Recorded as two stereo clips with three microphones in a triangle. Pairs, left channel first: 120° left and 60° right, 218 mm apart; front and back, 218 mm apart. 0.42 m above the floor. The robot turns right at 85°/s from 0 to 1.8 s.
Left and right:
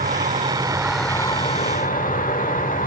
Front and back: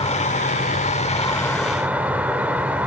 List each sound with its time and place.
0.0 s an insect: 50° right, 1.0 m; by 2.9 s 100° left, 1.0 m